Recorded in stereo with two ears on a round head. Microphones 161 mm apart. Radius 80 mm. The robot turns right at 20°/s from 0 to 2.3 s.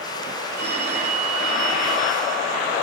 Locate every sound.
0.6 s a phone ringing: 50° right, 5.5 m; by 2.5 s 15° right, 5.5 m